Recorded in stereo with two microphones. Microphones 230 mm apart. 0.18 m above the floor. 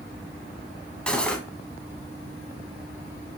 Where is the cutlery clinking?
5° left (ahead or behind), 0.6 m.